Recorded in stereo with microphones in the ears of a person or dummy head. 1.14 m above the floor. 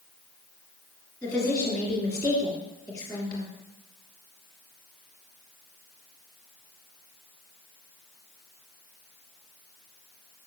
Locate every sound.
1.2 s a woman speaking: 20° left (ahead or behind), 2.5 m